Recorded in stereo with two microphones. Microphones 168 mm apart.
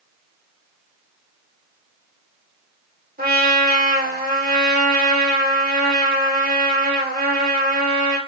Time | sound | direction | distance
3.2 | a trumpet | 65° right (ahead or behind) | 2.5 m